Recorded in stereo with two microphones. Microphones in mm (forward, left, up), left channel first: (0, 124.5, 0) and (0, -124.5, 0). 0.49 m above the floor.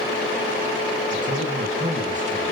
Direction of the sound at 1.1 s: 30° right (ahead or behind).